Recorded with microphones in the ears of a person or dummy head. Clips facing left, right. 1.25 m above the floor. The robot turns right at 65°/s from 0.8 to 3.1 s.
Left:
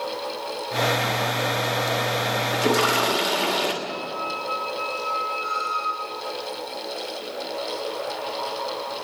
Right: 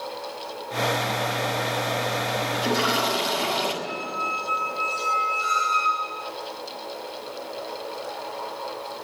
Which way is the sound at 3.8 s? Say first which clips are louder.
Left 1 dB; 45° right (ahead or behind).